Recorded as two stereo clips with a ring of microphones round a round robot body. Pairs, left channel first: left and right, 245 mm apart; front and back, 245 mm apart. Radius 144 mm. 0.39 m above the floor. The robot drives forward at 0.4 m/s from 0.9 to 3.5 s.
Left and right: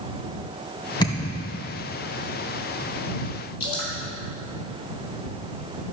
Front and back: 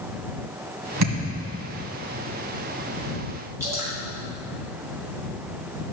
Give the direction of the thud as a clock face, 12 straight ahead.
7 o'clock.